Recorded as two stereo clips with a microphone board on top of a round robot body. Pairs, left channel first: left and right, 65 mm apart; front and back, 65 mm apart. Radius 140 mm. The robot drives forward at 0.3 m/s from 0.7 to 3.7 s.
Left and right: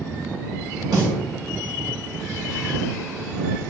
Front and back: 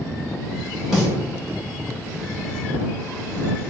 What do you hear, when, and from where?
0.9 s a snare drum: 95° right, 1.7 m